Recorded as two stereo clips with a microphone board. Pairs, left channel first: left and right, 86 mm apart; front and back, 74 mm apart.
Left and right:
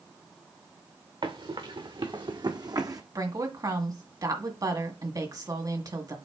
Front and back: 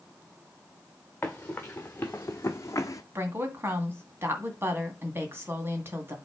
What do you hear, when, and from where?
1.2 s running footsteps: 70° right, 2 m; by 3.0 s 45° right, 1.0 m
3.1 s a woman speaking: 125° right, 2 m